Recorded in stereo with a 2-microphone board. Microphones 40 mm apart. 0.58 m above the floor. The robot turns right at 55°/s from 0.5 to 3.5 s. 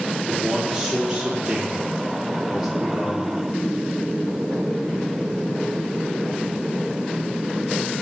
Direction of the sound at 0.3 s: 15° right (ahead or behind).